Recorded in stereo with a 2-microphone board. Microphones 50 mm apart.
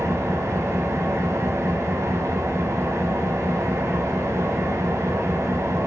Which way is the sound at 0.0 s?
80° right.